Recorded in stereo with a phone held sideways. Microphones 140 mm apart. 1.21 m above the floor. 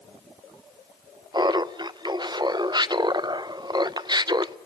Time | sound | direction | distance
1.3 | laughter | 30° right (ahead or behind) | 0.5 m